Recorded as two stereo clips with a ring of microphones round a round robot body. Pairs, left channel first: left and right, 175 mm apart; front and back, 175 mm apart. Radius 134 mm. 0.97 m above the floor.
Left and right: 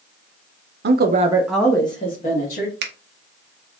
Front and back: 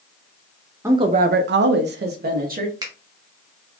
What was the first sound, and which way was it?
A woman speaking, 100° right.